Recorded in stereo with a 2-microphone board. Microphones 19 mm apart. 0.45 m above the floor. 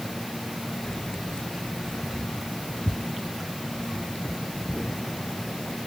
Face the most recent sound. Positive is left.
turn(degrees=75)  # may be behind; listen again after turning